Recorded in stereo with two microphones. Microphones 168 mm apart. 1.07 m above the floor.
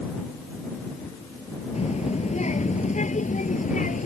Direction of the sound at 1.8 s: 45° left (ahead or behind).